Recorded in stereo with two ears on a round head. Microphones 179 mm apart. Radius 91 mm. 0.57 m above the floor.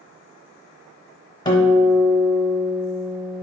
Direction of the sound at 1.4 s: 20° left (ahead or behind).